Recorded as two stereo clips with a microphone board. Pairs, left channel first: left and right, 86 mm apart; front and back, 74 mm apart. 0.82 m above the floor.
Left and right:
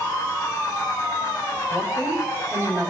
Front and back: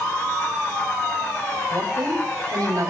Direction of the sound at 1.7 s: 145° right.